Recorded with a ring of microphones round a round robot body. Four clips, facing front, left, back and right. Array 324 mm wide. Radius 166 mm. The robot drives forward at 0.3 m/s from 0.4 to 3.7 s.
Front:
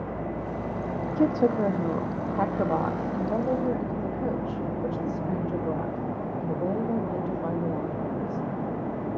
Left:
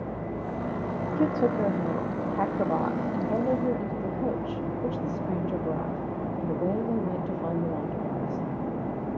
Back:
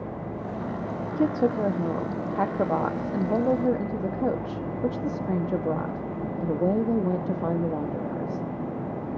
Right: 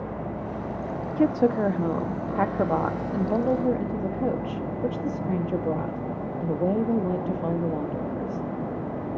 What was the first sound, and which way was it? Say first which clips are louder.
A woman speaking: right 3 dB, front 1 dB; 70° right.